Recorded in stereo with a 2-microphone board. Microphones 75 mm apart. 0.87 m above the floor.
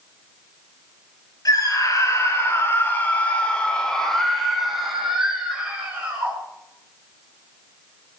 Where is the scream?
55° left (ahead or behind), 4 m; by 6.4 s 20° right (ahead or behind), 5.5 m.